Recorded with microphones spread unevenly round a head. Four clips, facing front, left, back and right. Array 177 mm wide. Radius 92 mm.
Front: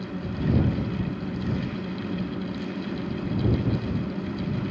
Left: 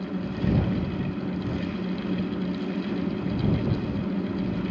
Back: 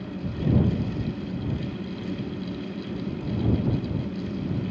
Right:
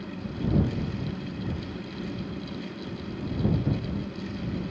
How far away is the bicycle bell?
No bicycle bell in this recording.